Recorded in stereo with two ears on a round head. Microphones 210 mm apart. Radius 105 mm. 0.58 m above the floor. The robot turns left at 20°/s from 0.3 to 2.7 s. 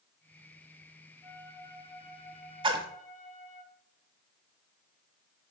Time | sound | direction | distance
1.2 | a flute | 5° left (ahead or behind) | 1.6 m
2.6 | a splash | 20° right (ahead or behind) | 1.2 m